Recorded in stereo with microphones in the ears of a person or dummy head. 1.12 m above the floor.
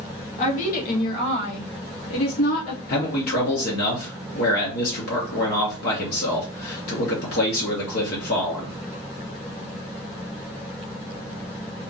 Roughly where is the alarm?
No alarm in this recording.